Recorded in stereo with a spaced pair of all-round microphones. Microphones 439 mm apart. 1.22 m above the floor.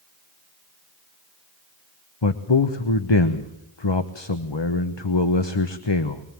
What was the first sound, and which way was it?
A man speaking, 70° left (ahead or behind).